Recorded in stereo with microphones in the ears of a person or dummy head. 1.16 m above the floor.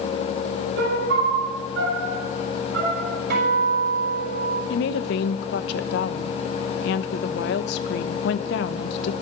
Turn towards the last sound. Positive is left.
turn(degrees=65)  # may be behind; listen again after turning